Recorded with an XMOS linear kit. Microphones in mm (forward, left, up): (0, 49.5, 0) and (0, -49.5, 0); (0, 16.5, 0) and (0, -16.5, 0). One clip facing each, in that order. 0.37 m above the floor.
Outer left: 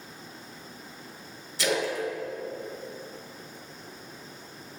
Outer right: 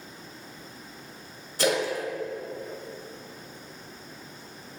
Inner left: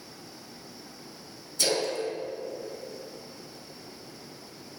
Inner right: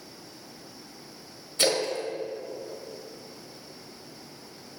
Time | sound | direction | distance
1.6 | a splash | 50° right (ahead or behind) | 1.5 m